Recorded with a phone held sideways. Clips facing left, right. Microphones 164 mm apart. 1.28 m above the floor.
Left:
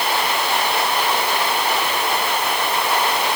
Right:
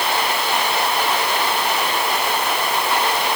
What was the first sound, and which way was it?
Only background noise.